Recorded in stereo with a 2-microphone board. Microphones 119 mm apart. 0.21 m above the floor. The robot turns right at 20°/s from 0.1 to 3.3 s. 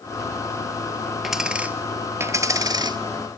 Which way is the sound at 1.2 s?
Straight behind.